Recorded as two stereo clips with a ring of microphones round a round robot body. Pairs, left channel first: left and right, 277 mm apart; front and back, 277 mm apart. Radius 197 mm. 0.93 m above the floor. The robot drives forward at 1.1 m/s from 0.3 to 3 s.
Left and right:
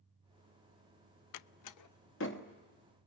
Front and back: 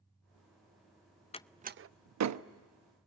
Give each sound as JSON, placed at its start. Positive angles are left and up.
{"t": 1.3, "sound": "a door slam", "azimuth_deg": 70, "distance_m": 0.5}